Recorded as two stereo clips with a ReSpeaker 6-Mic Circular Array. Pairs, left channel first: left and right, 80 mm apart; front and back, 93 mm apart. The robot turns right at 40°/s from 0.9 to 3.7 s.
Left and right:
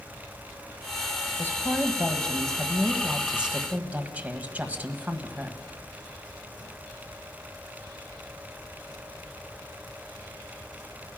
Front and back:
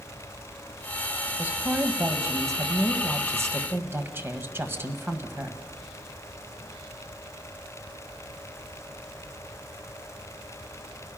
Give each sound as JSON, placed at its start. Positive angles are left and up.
{"t": 1.4, "sound": "a woman speaking", "azimuth_deg": 125, "distance_m": 1.6}